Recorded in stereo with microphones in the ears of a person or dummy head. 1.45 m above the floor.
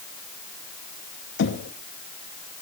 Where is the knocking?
60° left (ahead or behind), 2 m.